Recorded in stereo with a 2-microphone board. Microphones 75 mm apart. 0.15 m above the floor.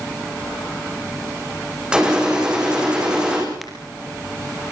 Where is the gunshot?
10° right (ahead or behind), 10 m.